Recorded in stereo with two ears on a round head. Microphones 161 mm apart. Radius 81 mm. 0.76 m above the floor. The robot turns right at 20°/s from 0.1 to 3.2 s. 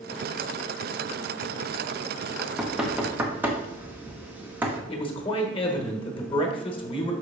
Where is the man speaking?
30° left (ahead or behind), 1.1 m.